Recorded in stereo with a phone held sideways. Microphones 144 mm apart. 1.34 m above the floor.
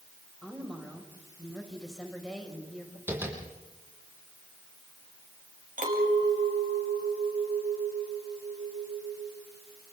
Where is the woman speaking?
Centre (ahead or behind), 5.5 m.